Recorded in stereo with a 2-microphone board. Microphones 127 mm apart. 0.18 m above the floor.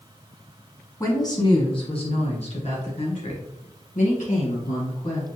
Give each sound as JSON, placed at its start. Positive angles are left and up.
{"t": 1.0, "sound": "a woman speaking", "side_deg": 25, "distance_m": 1.3}